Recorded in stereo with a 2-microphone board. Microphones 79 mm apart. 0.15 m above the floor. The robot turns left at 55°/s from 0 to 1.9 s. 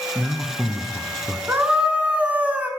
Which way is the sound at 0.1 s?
15° right (ahead or behind).